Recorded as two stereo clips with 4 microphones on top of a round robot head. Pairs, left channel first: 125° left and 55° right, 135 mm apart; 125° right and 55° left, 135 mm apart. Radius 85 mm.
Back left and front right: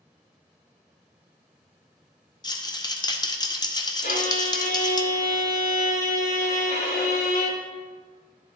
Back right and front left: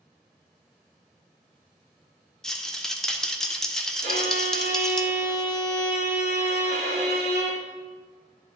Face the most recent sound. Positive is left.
turn(degrees=90)